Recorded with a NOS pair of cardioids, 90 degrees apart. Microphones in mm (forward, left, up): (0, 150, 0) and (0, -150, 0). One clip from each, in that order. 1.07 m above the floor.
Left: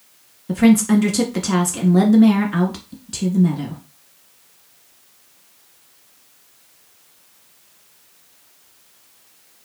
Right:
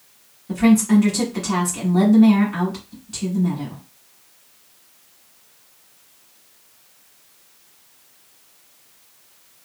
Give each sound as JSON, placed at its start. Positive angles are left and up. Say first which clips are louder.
{"t": 0.5, "sound": "a woman speaking", "louder": "left 2 dB", "azimuth_deg": 30, "distance_m": 1.2}